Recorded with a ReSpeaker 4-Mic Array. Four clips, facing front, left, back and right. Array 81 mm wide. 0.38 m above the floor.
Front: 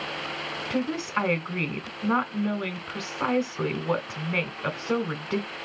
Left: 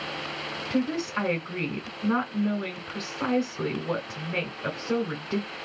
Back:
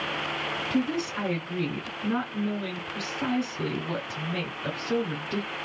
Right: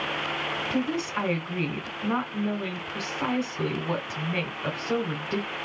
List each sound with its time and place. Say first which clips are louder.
0.7 s a woman speaking: left 2 dB, front 1 dB; 10° left, 1.3 m